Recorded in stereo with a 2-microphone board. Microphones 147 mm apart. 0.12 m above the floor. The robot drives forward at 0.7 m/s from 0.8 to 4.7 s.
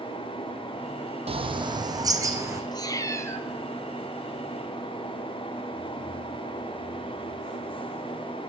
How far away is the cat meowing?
About 0.7 m.